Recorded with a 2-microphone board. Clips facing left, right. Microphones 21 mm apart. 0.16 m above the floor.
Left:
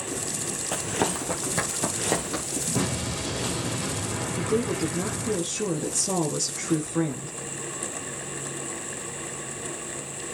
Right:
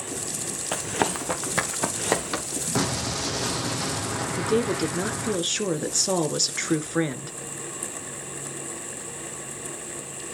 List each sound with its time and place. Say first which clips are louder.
0.7 s running footsteps: right 1 dB; 20° right (ahead or behind), 1.9 m; by 2.6 s 35° right (ahead or behind), 3 m
2.8 s an explosion: right 4 dB; 60° right (ahead or behind), 3 m
4.4 s a woman speaking: right 2 dB; 50° right (ahead or behind), 1.9 m